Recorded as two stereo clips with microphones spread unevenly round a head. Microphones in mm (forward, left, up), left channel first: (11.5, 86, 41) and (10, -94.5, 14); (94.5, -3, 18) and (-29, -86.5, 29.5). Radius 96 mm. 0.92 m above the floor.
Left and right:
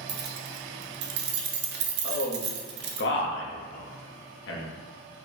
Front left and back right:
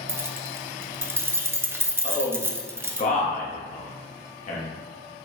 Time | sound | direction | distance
0.1 | keys jangling | 70° right | 0.6 m
2.0 | a man speaking | 70° left | 1.1 m